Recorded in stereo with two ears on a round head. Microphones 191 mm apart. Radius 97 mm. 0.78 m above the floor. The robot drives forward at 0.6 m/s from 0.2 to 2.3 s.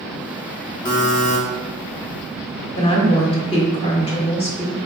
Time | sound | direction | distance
0.8 | a buzzer | 20° left (ahead or behind) | 0.9 m
2.8 | a woman speaking | 25° left (ahead or behind) | 1.4 m